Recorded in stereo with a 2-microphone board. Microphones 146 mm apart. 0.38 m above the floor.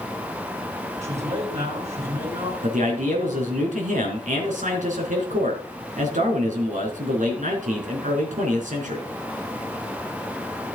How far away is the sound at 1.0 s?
About 4.5 m.